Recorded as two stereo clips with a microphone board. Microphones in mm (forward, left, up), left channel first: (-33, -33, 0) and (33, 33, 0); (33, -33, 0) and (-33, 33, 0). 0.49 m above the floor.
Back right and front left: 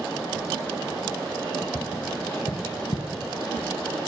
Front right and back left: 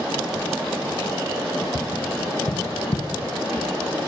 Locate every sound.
1.8 s tapping: 85° right, 1.6 m